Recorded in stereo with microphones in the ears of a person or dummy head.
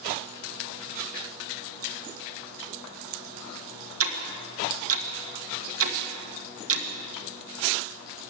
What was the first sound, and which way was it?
Ticking, 70° right (ahead or behind).